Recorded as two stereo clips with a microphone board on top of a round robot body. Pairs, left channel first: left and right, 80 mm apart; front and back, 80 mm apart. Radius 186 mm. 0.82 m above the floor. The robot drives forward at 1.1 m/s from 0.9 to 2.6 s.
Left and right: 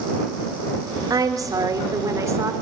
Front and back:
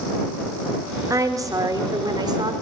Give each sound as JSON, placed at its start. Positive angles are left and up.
{"t": 1.1, "sound": "a woman speaking", "azimuth_deg": -130, "distance_m": 3.5}